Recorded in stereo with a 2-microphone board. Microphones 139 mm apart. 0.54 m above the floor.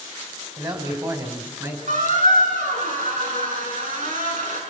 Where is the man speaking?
35° right (ahead or behind), 4 m; by 1.8 s 25° right (ahead or behind), 4.5 m.